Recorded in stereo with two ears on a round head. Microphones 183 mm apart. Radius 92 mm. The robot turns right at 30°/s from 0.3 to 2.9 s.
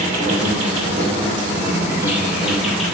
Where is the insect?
70° right, 0.8 m; by 2.9 s 5° left, 0.8 m.